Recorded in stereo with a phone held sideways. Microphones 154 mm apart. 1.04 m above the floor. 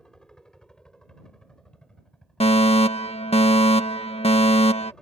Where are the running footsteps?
No running footsteps in this recording.